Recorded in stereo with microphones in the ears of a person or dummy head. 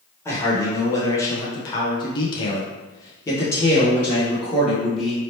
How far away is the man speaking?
About 1.3 m.